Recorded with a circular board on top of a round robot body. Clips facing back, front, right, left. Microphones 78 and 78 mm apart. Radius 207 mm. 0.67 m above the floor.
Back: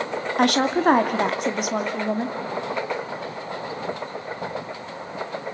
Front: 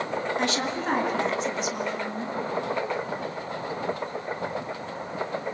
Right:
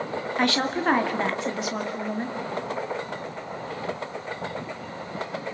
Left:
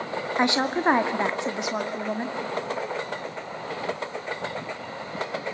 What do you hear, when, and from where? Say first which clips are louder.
0.4 s a woman speaking: back 8 dB, left 1 dB; 160° left, 2.5 m